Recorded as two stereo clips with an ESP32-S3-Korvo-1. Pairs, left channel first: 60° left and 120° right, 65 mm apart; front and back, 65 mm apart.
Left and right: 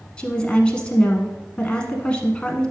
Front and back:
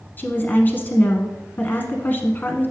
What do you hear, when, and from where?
0.2 s a woman speaking: straight ahead, 1.1 m